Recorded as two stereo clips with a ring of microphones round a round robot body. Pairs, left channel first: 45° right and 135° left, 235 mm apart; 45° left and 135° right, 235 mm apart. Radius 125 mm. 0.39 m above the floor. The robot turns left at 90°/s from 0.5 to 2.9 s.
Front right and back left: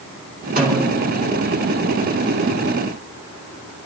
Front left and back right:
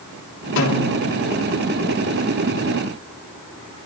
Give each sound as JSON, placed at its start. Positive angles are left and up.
{"t": 0.6, "sound": "a snare drum", "azimuth_deg": 85, "distance_m": 5.0}